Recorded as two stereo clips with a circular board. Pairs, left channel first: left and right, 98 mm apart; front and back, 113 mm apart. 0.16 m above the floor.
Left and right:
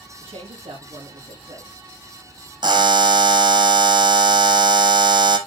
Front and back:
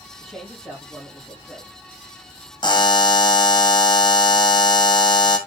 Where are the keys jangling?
No keys jangling in this recording.